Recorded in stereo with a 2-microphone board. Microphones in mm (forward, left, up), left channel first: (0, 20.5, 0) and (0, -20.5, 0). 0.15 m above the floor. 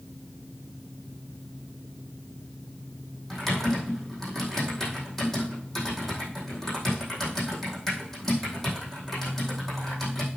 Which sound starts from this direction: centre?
Typing on a keyboard, at 3.3 s.